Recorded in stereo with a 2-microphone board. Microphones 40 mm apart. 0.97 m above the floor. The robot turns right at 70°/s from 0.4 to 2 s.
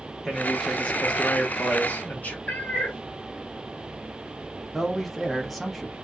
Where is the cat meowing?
40° left (ahead or behind), 0.6 m.